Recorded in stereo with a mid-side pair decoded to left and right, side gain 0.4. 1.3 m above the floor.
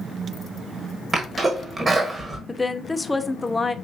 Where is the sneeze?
40° right, 1.3 m.